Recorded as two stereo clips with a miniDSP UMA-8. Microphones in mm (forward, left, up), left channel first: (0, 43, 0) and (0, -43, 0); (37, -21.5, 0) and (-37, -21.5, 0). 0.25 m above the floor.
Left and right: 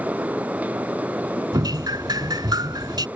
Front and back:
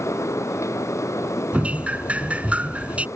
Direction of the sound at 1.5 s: 110° right.